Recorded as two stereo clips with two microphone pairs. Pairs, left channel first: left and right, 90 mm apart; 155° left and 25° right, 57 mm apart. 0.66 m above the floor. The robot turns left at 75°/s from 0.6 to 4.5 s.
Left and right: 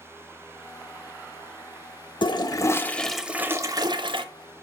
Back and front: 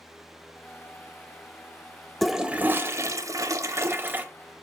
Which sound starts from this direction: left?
A toilet flushing, at 2.2 s.